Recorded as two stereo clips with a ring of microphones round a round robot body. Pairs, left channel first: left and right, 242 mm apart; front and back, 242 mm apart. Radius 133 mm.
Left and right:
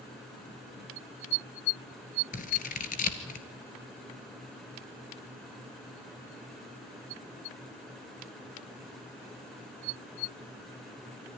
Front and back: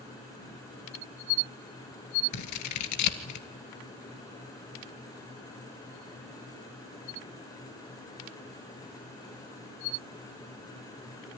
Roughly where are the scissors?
Ahead left.